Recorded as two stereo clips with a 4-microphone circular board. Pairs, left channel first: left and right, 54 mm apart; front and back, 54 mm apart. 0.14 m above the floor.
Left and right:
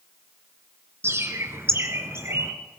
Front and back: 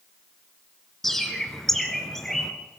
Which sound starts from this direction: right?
A bird, at 1.0 s.